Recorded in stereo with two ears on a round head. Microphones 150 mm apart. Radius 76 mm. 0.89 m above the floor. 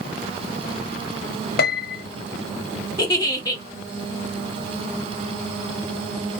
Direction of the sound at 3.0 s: 25° left (ahead or behind).